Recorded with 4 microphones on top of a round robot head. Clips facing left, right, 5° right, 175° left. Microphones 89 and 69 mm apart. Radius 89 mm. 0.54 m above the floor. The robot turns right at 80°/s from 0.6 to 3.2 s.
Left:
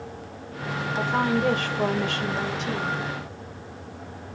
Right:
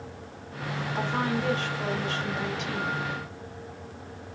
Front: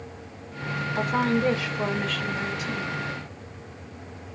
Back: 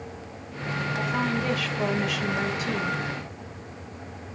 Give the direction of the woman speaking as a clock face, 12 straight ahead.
12 o'clock.